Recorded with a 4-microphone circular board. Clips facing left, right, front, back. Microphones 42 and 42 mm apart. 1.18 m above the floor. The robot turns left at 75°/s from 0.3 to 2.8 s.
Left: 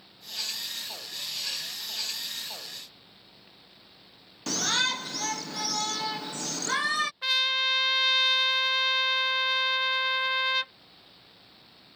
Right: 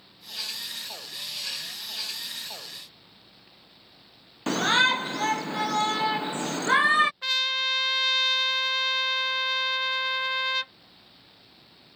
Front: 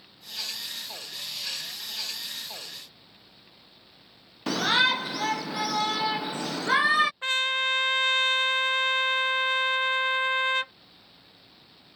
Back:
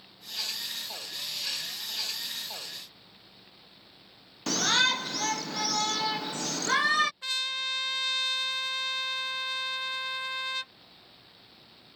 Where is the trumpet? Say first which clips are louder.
Even, front 7 dB; 5° left.